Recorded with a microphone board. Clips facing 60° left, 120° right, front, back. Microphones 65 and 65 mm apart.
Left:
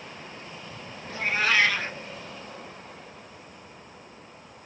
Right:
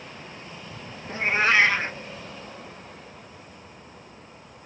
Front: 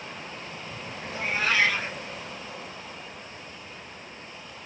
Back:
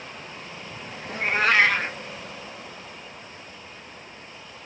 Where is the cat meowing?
170° right, 0.5 m.